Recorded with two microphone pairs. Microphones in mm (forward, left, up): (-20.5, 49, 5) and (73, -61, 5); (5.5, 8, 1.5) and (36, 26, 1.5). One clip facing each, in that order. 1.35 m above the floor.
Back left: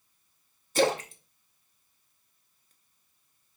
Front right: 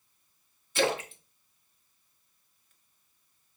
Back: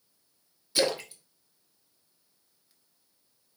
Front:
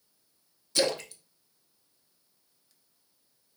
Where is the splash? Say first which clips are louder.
Back left 3 dB, even; 140° left, 0.8 m.